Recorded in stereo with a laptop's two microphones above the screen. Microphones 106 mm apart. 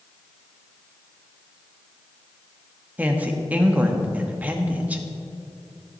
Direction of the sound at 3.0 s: 15° right (ahead or behind).